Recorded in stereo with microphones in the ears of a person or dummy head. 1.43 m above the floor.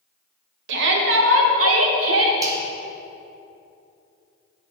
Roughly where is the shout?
Right.